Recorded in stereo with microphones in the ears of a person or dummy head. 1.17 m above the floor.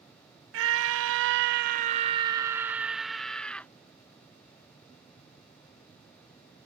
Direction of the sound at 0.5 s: 65° right (ahead or behind).